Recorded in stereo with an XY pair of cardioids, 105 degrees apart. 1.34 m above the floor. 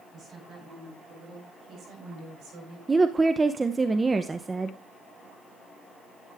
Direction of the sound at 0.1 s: 60° right.